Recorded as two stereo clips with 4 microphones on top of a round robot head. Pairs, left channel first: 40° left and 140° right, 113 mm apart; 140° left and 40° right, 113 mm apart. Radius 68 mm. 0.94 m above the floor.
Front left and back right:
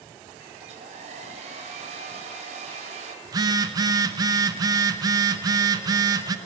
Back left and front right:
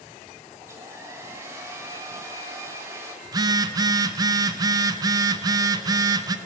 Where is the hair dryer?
105° right, 1.9 m.